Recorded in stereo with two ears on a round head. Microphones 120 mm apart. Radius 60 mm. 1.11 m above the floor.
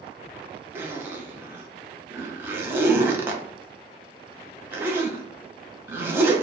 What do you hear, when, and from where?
0.8 s a zipper: 15° right (ahead or behind), 0.7 m